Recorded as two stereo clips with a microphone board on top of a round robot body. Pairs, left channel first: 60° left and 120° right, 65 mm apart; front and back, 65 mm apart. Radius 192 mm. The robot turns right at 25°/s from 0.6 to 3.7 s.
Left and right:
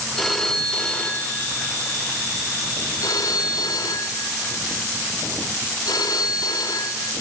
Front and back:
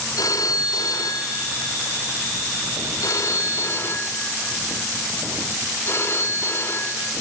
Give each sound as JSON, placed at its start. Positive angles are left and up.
{"t": 0.2, "sound": "a phone ringing", "azimuth_deg": -25, "distance_m": 2.5}